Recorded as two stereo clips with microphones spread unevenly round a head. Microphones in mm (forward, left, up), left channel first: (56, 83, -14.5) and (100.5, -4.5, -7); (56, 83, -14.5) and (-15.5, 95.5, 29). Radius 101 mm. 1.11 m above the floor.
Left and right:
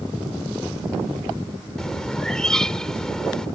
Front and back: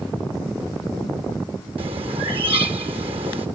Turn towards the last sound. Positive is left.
turn(degrees=-155)